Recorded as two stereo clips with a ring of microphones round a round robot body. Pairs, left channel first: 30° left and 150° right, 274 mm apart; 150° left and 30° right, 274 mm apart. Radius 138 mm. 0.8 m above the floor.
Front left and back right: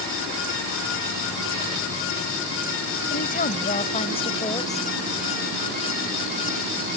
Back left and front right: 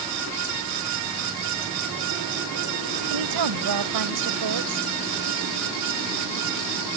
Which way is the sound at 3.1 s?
30° right.